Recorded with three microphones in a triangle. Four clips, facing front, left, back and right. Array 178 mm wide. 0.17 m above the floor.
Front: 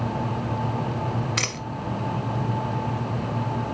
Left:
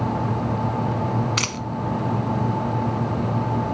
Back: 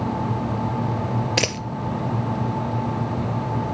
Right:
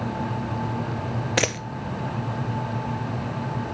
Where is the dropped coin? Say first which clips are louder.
Right 3 dB, back 6 dB; 130° right, 0.5 m.